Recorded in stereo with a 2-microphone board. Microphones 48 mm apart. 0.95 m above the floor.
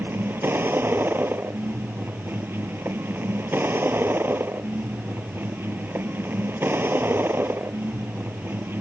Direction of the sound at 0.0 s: 50° right (ahead or behind).